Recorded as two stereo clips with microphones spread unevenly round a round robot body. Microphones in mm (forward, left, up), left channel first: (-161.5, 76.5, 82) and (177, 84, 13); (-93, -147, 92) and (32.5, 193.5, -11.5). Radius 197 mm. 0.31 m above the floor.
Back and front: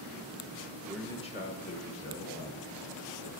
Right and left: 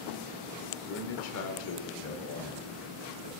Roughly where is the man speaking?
Ahead right.